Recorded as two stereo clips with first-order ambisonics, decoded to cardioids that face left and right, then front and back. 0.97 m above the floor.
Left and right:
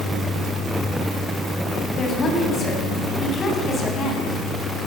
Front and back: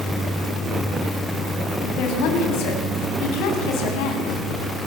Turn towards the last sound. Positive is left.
turn(degrees=25)